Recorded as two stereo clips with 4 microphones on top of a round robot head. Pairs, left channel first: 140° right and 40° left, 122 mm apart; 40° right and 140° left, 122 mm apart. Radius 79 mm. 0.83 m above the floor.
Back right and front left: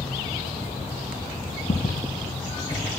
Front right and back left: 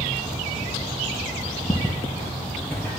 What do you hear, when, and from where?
1.7 s footsteps: 100° right, 1.2 m; by 3.0 s 55° right, 0.8 m